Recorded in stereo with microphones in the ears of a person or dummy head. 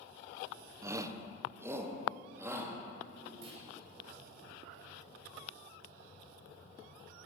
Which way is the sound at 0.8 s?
15° right (ahead or behind).